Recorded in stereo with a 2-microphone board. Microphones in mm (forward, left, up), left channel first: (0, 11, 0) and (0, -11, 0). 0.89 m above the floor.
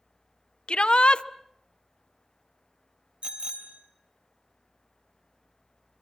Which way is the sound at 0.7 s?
55° left (ahead or behind).